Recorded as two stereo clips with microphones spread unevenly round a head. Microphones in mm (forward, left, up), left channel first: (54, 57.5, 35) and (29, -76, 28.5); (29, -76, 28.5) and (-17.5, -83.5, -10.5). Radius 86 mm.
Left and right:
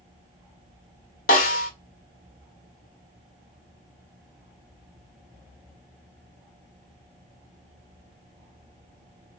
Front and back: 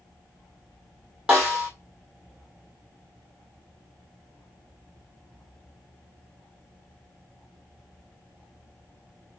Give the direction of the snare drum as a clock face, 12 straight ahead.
9 o'clock.